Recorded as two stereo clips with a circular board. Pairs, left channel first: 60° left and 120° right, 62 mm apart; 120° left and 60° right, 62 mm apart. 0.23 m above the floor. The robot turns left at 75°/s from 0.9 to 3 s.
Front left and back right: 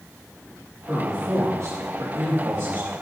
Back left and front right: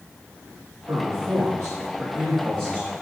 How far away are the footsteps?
No footsteps in this recording.